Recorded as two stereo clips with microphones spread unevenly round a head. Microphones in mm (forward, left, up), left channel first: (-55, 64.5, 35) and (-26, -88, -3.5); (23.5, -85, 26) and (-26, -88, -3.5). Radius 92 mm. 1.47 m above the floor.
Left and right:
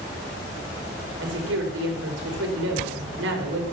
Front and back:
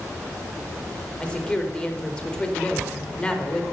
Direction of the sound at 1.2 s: 65° right.